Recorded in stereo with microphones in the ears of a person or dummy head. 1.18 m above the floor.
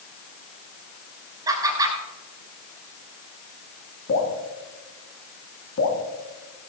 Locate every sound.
1.5 s laughter: 20° right (ahead or behind), 6.5 m
4.1 s dripping: 60° left (ahead or behind), 4.5 m